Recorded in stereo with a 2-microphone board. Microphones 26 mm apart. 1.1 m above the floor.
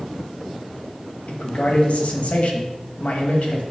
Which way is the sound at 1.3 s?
65° left (ahead or behind).